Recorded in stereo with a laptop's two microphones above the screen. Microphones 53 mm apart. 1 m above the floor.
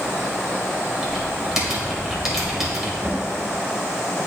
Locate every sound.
1.0 s typing on a keyboard: 10° right (ahead or behind), 2.5 m
3.0 s a cupboard door: 35° right (ahead or behind), 1.2 m